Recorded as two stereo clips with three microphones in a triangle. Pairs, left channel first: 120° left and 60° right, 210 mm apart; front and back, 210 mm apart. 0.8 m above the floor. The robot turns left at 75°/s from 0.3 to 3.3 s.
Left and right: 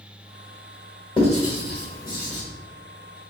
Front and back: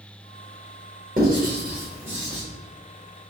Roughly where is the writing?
Behind.